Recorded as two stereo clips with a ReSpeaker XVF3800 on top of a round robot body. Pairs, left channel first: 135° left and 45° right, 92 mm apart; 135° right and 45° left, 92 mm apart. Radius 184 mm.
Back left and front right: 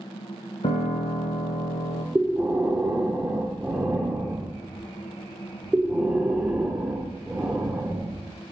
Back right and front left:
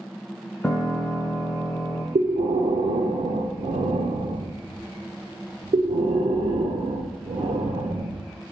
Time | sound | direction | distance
0.6 | a piano | 140° left | 0.5 m
2.1 | breathing | 35° left | 0.9 m